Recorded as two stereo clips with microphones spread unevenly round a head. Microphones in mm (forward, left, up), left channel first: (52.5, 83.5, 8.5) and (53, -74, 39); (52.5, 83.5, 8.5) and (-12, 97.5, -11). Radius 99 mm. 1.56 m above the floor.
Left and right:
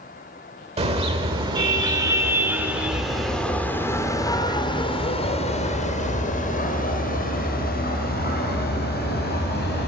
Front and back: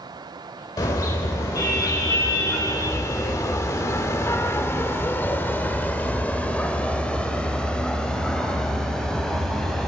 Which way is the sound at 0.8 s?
45° right.